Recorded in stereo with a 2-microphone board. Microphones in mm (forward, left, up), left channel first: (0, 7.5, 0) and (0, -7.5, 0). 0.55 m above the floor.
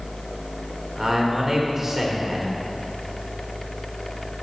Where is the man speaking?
20° right (ahead or behind), 2 m.